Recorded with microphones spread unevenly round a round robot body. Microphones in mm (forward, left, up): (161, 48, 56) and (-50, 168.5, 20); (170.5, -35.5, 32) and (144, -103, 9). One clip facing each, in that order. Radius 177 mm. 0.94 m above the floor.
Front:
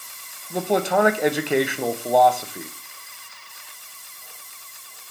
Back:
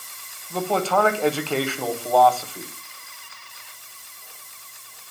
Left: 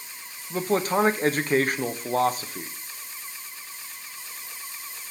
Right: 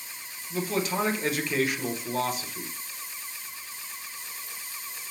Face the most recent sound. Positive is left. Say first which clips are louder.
# front 2 dB, left 5 dB
turn(degrees=45)